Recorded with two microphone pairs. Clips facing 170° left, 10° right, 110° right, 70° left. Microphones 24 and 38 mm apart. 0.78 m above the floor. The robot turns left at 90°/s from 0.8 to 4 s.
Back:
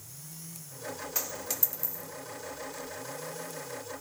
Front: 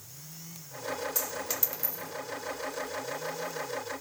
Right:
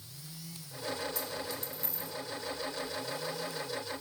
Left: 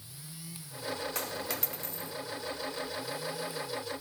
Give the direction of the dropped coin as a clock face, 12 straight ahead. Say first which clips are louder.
Front 2 dB, left 2 dB; 9 o'clock.